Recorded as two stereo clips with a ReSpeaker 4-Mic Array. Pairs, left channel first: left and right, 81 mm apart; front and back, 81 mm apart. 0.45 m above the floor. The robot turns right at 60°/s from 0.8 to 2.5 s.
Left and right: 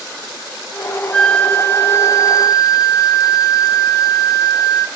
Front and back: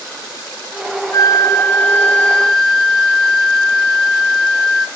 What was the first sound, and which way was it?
A flute, 15° left.